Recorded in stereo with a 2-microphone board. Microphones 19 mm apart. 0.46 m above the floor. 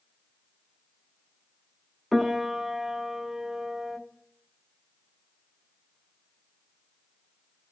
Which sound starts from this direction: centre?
A piano, at 2.1 s.